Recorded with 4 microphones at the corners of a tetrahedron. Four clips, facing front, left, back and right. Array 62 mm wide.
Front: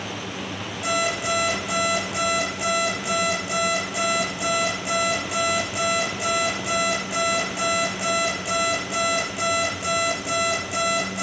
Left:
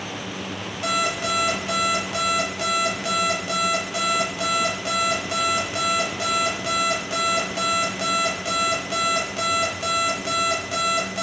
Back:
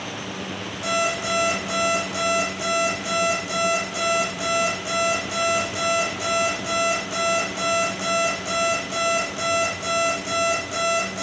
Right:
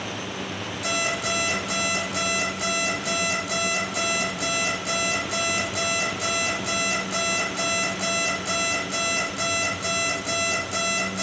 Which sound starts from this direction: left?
An alarm clock, at 0.8 s.